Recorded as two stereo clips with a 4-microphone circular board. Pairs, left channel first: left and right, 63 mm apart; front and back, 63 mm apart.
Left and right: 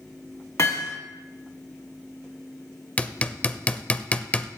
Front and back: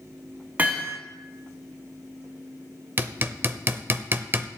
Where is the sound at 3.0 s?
145° left, 0.5 m.